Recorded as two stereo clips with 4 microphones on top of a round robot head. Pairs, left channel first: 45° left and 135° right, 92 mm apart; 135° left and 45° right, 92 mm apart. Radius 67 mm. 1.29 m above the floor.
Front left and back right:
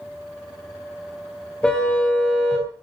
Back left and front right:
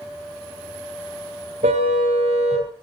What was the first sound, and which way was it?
A car horn, 40° right.